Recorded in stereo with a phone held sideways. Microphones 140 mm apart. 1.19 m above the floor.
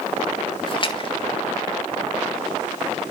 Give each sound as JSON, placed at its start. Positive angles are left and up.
{"t": 0.7, "sound": "a splash", "side_deg": 35, "distance_m": 1.9}